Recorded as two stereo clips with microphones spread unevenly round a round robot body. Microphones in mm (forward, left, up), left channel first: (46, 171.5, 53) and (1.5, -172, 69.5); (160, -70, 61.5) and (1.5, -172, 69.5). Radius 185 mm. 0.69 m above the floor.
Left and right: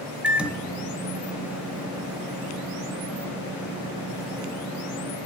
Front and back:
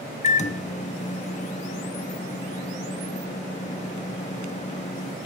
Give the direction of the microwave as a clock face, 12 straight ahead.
12 o'clock.